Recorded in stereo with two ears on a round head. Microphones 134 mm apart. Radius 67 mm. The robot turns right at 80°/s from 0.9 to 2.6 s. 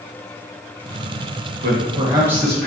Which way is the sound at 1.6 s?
65° right.